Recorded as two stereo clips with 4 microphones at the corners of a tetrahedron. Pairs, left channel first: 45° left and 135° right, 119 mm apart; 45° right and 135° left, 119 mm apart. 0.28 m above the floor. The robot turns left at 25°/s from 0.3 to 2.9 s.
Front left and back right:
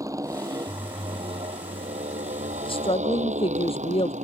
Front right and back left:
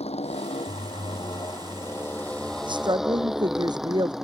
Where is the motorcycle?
75° right; by 4.2 s 140° right.